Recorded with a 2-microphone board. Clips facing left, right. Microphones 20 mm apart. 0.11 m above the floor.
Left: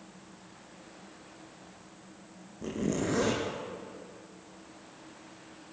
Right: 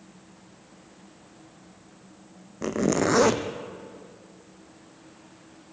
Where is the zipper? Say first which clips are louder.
Right 8 dB; 50° right (ahead or behind), 1.8 m.